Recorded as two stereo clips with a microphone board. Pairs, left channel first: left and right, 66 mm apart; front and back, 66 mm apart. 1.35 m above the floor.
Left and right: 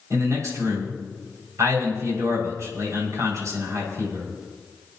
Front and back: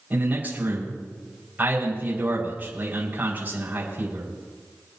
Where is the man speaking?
120° right, 6 m.